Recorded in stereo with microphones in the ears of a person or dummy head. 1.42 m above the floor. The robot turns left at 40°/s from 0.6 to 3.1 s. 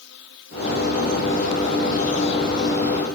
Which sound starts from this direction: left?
An insect, at 0.0 s.